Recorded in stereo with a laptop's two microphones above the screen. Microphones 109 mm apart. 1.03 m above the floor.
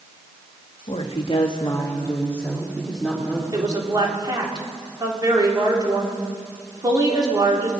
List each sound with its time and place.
0.9 s a woman speaking: 70° left (ahead or behind), 1.8 m; by 3.4 s 5° right (ahead or behind), 3.5 m
3.5 s a woman speaking: 40° right (ahead or behind), 2.5 m